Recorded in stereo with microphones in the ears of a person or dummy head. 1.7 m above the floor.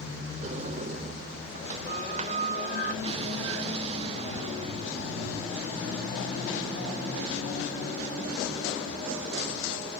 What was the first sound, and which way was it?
A sliding door, 40° right (ahead or behind).